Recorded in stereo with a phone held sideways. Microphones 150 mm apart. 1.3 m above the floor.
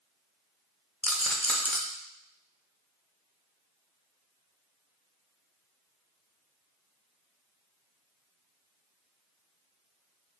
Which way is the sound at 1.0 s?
10° left (ahead or behind).